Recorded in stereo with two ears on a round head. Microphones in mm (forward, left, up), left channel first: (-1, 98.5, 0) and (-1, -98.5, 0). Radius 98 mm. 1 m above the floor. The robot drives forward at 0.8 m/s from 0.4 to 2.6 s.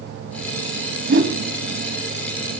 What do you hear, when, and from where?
1.1 s a whoosh: 50° right (ahead or behind), 2 m; by 1.4 s 55° right (ahead or behind), 2.0 m